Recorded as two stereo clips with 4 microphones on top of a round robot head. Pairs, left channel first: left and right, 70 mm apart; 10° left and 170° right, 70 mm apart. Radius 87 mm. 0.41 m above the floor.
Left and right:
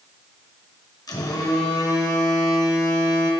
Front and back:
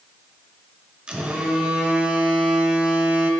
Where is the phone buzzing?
115° left, 1.3 m.